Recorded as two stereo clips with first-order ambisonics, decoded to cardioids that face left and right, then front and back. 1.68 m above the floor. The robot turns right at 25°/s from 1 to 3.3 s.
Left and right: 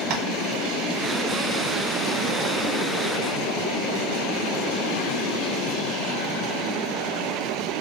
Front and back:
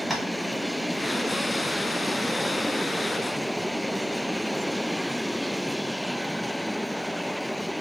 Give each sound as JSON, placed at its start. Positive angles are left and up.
{"t": 0.1, "sound": "tapping", "azimuth_deg": -85, "distance_m": 0.6}